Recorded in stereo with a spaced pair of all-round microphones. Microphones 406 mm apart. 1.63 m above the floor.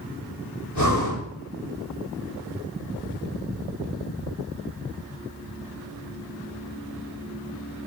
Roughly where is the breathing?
Left.